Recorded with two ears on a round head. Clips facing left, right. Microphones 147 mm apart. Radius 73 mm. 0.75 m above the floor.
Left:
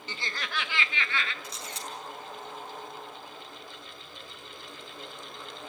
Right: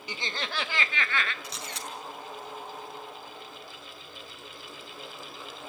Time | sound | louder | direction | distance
0.1 | laughter | right 2 dB | 10° right (ahead or behind) | 0.6 m
1.4 | a camera shutter | right 1 dB | 55° right (ahead or behind) | 5.5 m